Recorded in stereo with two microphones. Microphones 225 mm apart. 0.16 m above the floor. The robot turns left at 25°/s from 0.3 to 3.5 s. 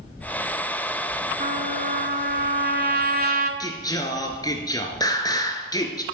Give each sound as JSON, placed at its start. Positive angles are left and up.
{"t": 1.4, "sound": "a trumpet", "azimuth_deg": -65, "distance_m": 1.0}
{"t": 3.6, "sound": "singing", "side_deg": 15, "distance_m": 1.3}